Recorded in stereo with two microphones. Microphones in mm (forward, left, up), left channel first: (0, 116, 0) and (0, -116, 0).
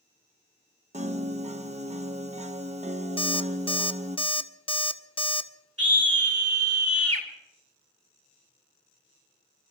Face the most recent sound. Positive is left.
turn(degrees=-80)